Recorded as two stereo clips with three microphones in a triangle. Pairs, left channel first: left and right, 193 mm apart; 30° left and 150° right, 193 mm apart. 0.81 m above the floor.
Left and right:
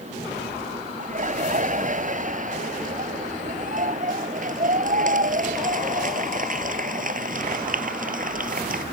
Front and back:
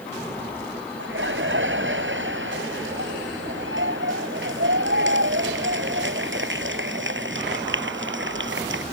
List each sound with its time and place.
1.0 s laughter: 140° right; by 8.8 s 135° right